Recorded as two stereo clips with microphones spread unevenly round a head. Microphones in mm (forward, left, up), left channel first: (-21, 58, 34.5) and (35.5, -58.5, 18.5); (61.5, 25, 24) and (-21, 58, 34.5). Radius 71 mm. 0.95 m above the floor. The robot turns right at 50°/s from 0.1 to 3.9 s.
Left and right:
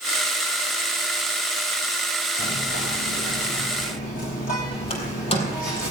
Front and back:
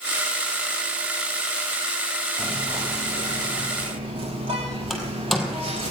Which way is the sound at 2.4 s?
70° left.